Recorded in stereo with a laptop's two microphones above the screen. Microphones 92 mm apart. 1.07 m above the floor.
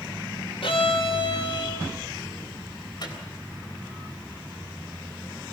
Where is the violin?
75° left (ahead or behind), 2.5 m.